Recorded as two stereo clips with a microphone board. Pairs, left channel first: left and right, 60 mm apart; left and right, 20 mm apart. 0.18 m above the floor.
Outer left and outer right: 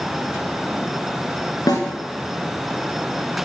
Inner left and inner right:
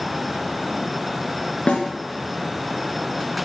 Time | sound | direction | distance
1.7 | a snare drum | 85° left | 2.5 m